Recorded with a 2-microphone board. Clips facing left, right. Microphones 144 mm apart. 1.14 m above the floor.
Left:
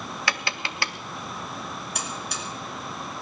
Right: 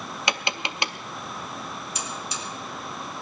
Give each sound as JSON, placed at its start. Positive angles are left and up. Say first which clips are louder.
{"t": 0.3, "sound": "tapping", "louder": "right 3 dB", "side_deg": -20, "distance_m": 0.7}
{"t": 1.9, "sound": "a buzzer", "louder": "left 1 dB", "side_deg": 65, "distance_m": 2.5}